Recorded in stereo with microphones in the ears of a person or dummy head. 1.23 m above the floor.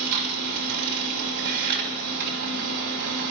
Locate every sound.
0.0 s a machine running: 60° right (ahead or behind), 5 m